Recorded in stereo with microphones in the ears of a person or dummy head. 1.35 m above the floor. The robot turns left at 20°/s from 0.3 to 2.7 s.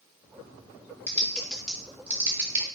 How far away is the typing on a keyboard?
About 0.8 m.